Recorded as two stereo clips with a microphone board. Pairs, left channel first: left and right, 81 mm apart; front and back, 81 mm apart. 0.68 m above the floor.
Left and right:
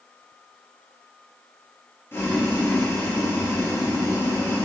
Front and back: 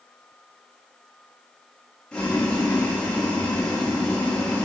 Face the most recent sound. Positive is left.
turn(degrees=70)